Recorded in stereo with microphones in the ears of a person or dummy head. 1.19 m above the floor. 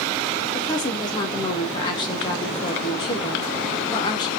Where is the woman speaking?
20° left (ahead or behind), 0.6 m.